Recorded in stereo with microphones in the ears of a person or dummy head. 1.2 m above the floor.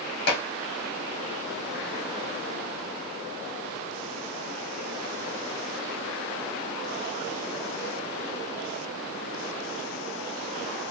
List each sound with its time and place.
0.3 s dishes clattering: 70° left (ahead or behind), 1.9 m